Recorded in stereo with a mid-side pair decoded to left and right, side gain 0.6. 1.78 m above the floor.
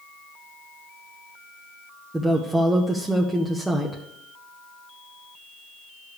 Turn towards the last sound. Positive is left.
turn(degrees=-15)